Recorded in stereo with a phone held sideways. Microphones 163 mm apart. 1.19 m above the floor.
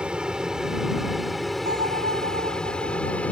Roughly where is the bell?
Right.